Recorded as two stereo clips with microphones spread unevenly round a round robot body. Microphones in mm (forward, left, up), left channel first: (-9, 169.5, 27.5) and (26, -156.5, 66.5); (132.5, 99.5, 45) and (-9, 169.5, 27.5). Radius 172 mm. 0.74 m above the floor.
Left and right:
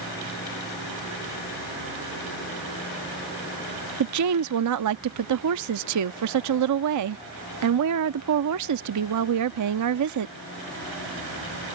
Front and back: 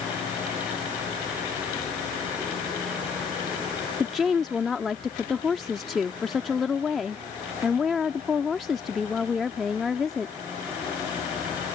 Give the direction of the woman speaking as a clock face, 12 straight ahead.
4 o'clock.